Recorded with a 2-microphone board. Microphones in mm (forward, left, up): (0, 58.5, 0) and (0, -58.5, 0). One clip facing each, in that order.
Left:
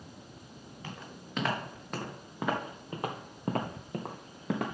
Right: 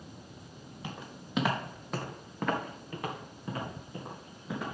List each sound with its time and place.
0.8 s footsteps: 15° right (ahead or behind), 3.5 m; by 4.8 s 75° left (ahead or behind), 2 m